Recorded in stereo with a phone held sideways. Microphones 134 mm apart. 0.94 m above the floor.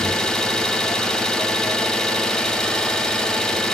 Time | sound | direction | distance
0.0 | an engine running | 5° left (ahead or behind) | 0.7 m